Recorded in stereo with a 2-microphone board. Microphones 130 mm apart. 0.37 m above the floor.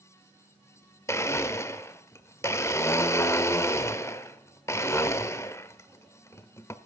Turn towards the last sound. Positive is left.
turn(degrees=20)  # may be behind; listen again after turning